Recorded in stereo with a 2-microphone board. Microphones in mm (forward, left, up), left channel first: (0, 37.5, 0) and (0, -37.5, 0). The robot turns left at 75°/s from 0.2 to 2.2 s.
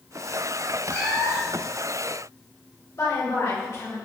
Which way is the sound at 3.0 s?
55° left (ahead or behind).